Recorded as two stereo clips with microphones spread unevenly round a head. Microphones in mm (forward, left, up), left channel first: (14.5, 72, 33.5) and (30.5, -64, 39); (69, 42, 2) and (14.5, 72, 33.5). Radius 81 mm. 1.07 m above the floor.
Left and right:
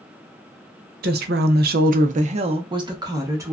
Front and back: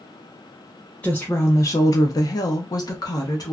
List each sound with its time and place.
1.0 s a woman speaking: 105° right, 0.6 m; by 3.5 s 15° right, 1.1 m